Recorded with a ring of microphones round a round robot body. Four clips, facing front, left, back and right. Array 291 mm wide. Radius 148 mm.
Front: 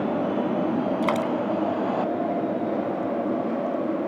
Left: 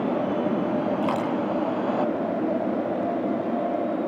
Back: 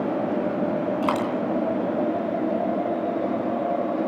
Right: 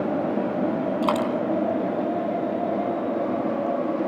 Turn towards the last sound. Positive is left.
turn(degrees=-65)